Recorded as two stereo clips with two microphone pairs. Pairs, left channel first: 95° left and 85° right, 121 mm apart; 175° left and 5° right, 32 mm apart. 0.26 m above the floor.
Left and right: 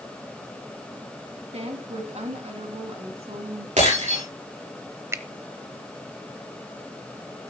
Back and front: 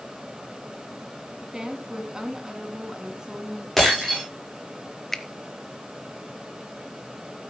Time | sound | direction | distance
1.5 | a woman speaking | 70° right | 2 m
3.8 | breaking glass | 100° right | 9.5 m
5.1 | a finger snap | 120° right | 0.7 m